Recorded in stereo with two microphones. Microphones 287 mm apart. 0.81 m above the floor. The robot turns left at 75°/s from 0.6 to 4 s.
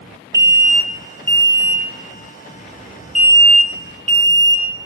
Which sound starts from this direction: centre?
An alarm, at 0.3 s.